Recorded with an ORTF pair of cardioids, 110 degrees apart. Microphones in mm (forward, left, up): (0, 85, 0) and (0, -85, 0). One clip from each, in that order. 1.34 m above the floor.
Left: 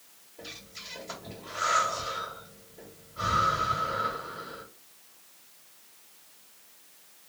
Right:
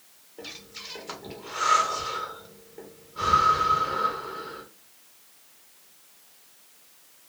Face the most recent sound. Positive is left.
turn(degrees=-65)